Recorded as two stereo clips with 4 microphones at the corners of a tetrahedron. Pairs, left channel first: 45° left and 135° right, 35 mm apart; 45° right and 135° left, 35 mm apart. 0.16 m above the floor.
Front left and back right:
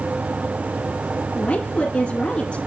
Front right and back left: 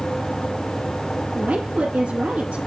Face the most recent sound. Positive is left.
turn(degrees=85)